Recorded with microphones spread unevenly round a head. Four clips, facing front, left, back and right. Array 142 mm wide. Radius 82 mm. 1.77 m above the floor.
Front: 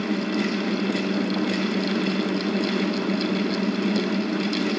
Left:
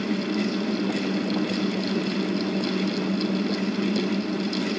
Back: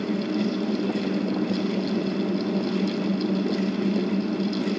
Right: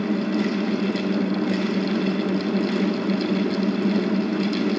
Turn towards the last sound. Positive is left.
No sound to turn to.